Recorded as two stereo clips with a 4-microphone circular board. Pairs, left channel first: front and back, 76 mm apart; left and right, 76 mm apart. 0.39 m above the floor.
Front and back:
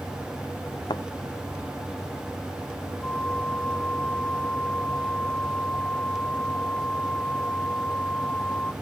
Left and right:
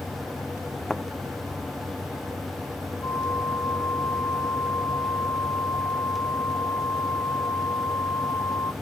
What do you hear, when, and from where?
0.9 s a thud: 5° left
3.0 s a flute: 65° left